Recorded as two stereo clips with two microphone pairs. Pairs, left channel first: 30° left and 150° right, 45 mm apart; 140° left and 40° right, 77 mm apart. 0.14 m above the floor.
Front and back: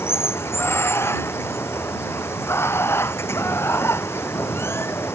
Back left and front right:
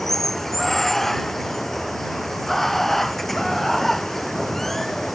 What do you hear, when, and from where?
0.0 s running water: 55° left